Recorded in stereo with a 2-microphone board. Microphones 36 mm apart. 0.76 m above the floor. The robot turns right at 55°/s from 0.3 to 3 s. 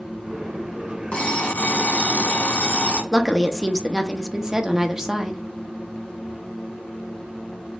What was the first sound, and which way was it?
An alarm clock, 25° left.